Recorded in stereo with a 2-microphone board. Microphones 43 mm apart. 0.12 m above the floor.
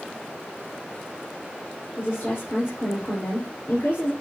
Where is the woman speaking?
60° left (ahead or behind), 4 m.